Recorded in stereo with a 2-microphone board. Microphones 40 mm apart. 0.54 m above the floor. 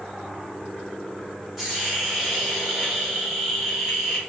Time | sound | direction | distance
1.6 | a hiss | 10° right (ahead or behind) | 1.4 m